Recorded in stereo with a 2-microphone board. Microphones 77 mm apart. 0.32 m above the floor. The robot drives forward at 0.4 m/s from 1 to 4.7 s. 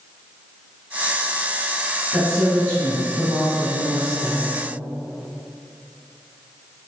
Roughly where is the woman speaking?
Centre.